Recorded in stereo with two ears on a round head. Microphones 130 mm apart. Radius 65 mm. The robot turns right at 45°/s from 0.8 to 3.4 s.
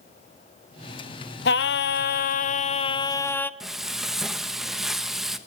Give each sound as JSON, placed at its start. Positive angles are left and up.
{"t": 1.4, "sound": "singing", "azimuth_deg": 80, "distance_m": 0.6}
{"t": 3.6, "sound": "frying", "side_deg": 0, "distance_m": 1.1}